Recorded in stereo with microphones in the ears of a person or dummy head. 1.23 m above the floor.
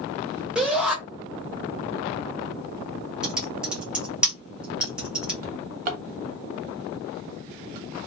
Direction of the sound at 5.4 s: 50° right (ahead or behind).